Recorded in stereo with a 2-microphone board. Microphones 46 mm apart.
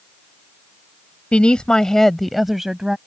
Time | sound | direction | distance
1.3 | a woman speaking | 25° left (ahead or behind) | ?